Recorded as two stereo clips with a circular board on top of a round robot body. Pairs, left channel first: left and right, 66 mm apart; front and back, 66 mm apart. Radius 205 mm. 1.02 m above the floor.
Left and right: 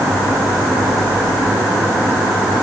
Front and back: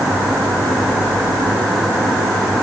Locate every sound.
Only background noise.